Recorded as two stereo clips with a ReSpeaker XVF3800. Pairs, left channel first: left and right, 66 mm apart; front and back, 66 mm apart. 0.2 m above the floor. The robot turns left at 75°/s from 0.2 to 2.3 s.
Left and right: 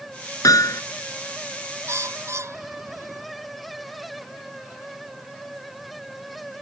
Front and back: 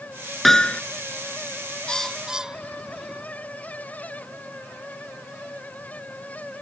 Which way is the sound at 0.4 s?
90° left.